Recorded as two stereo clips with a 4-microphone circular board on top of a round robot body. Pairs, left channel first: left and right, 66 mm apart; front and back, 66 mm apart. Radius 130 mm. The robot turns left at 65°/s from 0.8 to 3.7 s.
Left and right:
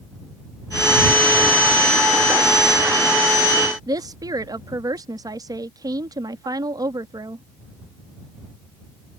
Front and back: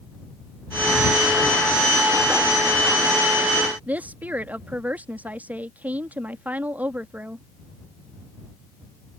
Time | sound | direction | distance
3.9 | a woman speaking | 110° right | ?